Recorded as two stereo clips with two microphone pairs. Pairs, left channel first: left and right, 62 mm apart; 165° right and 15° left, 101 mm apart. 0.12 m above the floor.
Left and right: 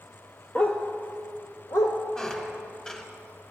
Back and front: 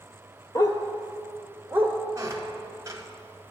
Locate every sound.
0.6 s a dog barking: 155° left, 0.8 m; by 2.0 s 80° left, 1.5 m
2.1 s a squeak: 20° left, 0.9 m